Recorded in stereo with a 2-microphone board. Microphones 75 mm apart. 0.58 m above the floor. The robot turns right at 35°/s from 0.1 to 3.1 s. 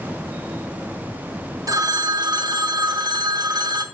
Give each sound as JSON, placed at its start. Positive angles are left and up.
{"t": 1.7, "sound": "a phone ringing", "azimuth_deg": -125, "distance_m": 0.8}